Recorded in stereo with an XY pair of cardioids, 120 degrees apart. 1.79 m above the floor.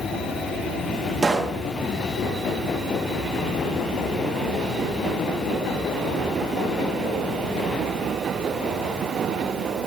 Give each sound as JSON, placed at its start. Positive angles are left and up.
{"t": 1.2, "sound": "a pop", "azimuth_deg": -20, "distance_m": 2.0}